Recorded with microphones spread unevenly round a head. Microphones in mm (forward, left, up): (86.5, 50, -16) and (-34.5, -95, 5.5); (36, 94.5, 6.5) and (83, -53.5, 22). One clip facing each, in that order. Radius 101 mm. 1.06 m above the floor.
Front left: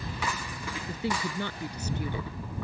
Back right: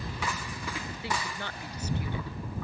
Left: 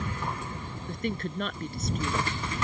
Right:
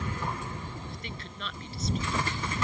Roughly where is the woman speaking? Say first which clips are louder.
Front left 7 dB, left 10 dB; ahead left.